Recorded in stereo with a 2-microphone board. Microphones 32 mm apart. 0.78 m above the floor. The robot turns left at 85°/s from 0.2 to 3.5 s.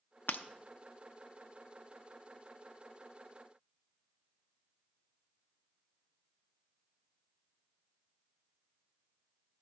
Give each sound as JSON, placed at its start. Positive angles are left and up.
{"t": 0.3, "sound": "breaking glass", "side_deg": 70, "distance_m": 0.7}